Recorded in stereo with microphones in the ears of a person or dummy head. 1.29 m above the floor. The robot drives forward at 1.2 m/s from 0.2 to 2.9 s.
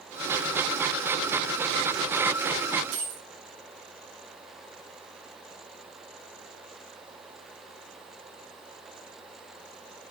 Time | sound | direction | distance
2.9 | a dropped coin | 80° right | 6 m